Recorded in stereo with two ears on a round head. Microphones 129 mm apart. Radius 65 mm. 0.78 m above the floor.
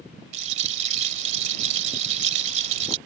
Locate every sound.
0.3 s a rattle: 50° right (ahead or behind)